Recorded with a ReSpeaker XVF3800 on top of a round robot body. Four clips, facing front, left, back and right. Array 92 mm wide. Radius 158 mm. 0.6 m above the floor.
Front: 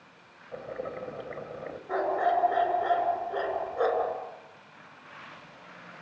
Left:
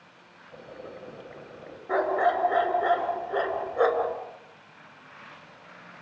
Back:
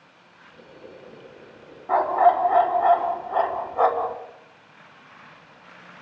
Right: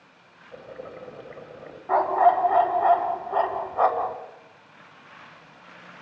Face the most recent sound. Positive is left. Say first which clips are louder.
# right 5 dB, back 8 dB
turn(degrees=-140)